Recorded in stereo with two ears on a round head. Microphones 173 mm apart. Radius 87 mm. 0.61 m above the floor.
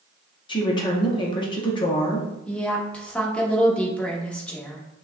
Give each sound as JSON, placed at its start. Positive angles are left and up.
{"t": 0.5, "sound": "a woman speaking", "side_deg": 25, "distance_m": 0.8}
{"t": 2.5, "sound": "a woman speaking", "side_deg": 5, "distance_m": 1.0}